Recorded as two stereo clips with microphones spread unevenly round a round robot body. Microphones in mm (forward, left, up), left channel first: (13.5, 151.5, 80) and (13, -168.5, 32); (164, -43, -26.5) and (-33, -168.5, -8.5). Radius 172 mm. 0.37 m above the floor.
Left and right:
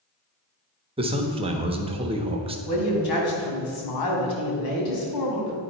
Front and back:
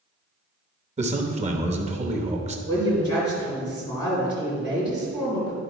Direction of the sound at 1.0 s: 115° right.